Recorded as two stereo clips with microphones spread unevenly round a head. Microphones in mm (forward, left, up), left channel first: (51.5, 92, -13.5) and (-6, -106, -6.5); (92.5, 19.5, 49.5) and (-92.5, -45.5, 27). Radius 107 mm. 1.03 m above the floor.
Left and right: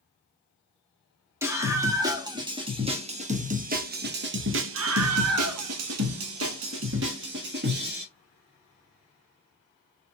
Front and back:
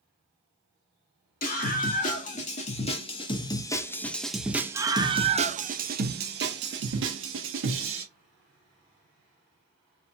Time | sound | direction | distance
1.4 | a scream | 30° right | 2 m